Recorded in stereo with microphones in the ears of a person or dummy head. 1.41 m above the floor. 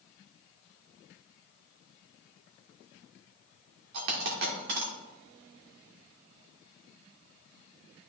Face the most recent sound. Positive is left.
turn(degrees=-60)  # may be behind; listen again after turning